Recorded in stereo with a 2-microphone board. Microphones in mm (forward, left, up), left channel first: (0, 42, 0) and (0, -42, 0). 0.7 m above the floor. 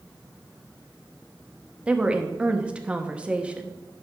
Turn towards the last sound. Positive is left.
turn(degrees=-15)  # may be behind; listen again after turning